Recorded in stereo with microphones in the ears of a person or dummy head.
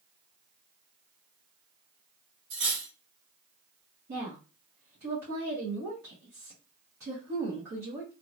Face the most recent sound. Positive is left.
turn(degrees=-45)  # may be behind; listen again after turning